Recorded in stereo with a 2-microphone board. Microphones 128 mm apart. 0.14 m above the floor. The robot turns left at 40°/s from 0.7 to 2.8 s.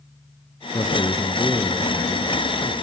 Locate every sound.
0.7 s a man speaking: 50° left, 2.5 m; by 2.7 s 30° right, 2.5 m